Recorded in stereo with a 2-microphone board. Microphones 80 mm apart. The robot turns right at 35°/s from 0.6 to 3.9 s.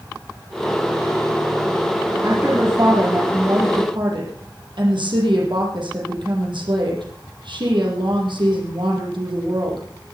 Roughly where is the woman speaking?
Behind right.